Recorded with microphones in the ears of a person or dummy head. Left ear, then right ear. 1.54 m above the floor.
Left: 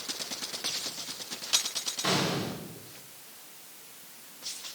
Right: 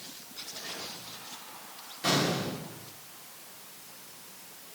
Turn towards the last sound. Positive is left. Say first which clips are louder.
# right 2 dB
turn(degrees=10)  # may be behind; listen again after turning